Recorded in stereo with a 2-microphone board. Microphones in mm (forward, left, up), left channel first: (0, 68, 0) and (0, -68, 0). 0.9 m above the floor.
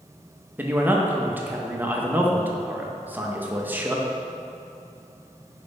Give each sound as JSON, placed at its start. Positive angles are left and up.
{"t": 0.6, "sound": "a man speaking", "side_deg": -15, "distance_m": 0.8}